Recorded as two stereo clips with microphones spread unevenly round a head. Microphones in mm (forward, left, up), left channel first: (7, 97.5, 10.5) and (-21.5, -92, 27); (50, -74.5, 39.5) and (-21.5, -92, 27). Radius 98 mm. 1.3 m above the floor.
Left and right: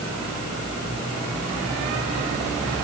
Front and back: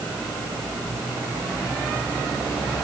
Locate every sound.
Only background noise.